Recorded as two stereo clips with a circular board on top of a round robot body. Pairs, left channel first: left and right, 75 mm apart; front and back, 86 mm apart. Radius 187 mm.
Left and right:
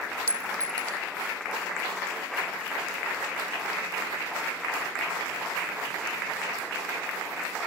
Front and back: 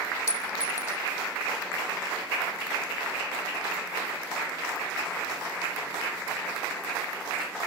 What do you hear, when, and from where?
0.3 s a clink: 50° right